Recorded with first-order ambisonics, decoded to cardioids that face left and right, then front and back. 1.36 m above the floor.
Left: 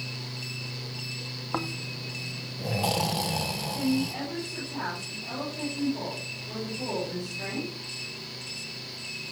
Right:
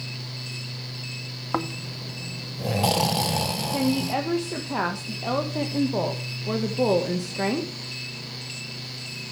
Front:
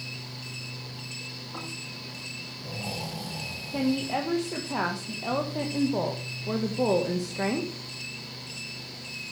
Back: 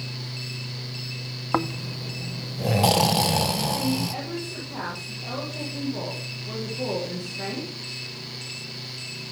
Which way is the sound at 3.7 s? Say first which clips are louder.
Right 5 dB, back 1 dB; 65° right.